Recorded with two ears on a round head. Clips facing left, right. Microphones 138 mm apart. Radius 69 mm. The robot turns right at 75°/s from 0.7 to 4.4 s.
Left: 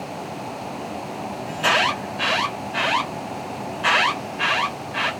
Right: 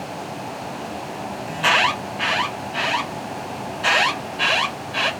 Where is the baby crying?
No baby crying in this recording.